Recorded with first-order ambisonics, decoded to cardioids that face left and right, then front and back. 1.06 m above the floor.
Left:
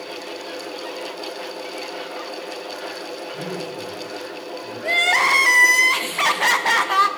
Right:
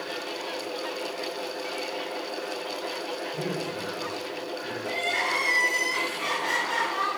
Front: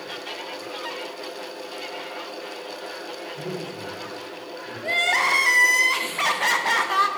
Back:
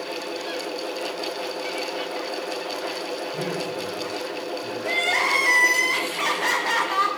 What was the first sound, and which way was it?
A man speaking, 155° right.